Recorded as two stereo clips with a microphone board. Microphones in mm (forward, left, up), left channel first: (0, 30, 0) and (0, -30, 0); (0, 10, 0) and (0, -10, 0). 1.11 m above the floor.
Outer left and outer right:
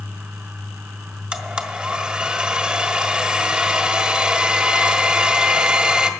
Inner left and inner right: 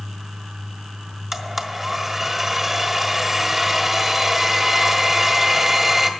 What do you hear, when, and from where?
1.3 s a blender: 15° right (ahead or behind), 1.4 m